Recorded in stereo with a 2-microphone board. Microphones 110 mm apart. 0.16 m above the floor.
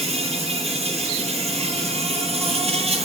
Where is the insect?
60° right (ahead or behind), 1.0 m.